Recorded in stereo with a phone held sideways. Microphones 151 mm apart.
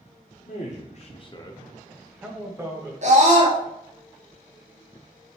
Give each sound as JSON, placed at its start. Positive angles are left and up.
{"t": 0.5, "sound": "a man speaking", "side_deg": 50, "distance_m": 0.9}
{"t": 3.0, "sound": "a scream", "side_deg": -50, "distance_m": 0.7}